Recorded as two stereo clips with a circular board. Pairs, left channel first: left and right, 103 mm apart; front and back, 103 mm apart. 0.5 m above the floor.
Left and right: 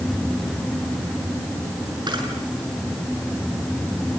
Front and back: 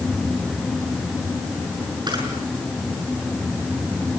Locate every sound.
2.1 s a camera shutter: 135° right, 6.5 m